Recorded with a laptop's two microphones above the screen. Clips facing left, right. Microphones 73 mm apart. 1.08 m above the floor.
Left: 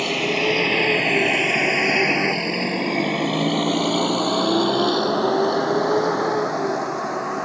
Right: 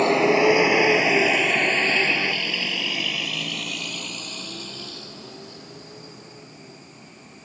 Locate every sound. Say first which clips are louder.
0.0 s a vehicle: right 5 dB; 30° right (ahead or behind); by 7.5 s 80° left